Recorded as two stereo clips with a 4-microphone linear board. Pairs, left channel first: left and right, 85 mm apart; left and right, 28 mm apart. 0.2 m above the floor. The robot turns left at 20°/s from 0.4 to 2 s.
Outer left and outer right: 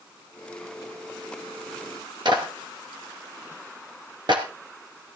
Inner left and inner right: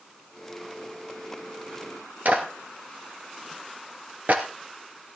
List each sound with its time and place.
2.2 s a clap: 65° right (ahead or behind), 2.5 m